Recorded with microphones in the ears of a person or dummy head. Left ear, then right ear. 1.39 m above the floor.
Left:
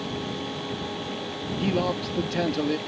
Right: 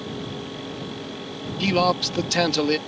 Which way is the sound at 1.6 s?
50° right (ahead or behind).